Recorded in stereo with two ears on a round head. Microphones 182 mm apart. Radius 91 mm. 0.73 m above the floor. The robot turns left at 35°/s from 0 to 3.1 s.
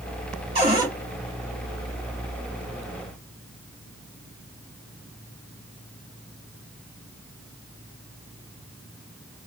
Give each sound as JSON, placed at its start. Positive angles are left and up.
{"t": 0.6, "sound": "a cupboard door", "side_deg": -30, "distance_m": 1.5}